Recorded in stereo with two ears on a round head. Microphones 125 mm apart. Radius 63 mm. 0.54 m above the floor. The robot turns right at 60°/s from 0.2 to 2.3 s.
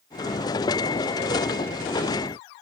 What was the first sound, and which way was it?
Only background noise.